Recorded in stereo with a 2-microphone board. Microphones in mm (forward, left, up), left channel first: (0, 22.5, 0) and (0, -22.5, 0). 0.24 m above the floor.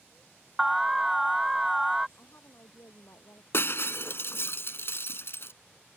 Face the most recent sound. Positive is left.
turn(degrees=60)  # may be behind; listen again after turning